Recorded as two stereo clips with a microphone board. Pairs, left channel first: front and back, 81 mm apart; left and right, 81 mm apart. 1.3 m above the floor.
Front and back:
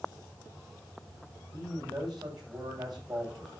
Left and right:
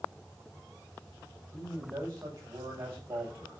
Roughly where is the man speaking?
Behind right.